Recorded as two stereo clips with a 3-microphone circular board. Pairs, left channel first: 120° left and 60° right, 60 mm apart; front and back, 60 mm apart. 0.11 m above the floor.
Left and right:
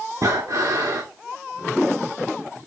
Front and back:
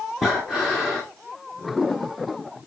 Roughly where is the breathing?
Right.